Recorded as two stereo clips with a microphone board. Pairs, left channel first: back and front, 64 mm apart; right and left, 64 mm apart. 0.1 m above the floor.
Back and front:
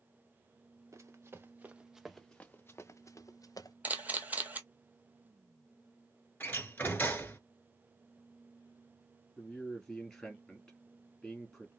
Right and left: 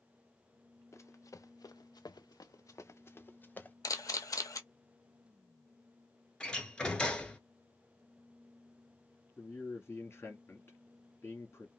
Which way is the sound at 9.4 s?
100° right.